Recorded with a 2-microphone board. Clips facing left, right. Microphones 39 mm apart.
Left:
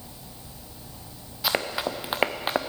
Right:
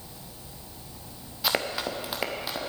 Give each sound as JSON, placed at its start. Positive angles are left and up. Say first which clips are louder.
{"t": 1.4, "sound": "running footsteps", "louder": "left 1 dB", "side_deg": 0, "distance_m": 1.0}